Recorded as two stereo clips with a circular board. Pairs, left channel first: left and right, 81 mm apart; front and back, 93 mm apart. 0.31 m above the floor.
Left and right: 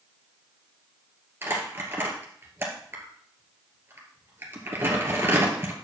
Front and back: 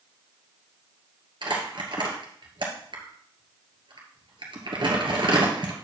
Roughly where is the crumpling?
Behind right.